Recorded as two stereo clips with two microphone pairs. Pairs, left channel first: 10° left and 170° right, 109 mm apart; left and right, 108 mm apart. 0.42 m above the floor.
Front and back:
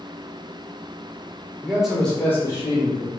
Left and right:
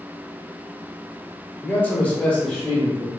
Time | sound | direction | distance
1.6 | a man speaking | 135° left | 1.0 m